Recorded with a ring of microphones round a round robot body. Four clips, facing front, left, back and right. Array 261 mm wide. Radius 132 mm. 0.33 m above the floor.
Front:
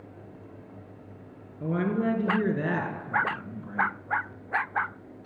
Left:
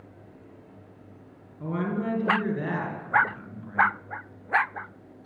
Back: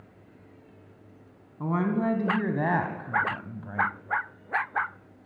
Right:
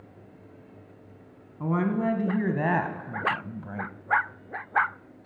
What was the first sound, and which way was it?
A woman speaking, 145° right.